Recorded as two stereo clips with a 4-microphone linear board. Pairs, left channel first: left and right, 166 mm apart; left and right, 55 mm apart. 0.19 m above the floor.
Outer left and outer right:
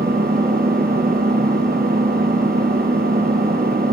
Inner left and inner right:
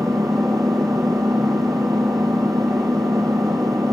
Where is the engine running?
70° right (ahead or behind), 4.5 m.